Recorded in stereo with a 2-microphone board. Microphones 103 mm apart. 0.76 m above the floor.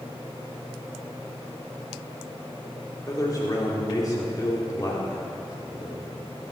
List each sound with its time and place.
3.1 s a man speaking: 35° left (ahead or behind), 2.5 m